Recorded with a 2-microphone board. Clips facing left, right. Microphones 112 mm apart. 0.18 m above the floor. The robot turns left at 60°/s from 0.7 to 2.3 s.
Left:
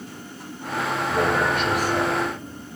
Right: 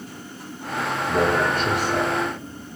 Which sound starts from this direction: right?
A man speaking, at 1.1 s.